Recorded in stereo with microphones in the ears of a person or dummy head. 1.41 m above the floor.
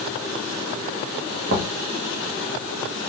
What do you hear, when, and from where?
1.5 s knocking: 60° right (ahead or behind), 1.1 m